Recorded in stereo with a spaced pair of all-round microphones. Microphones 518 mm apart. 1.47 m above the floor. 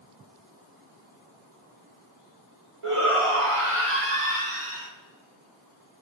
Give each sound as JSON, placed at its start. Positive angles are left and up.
{"t": 2.8, "sound": "a shout", "side_deg": -80, "distance_m": 2.5}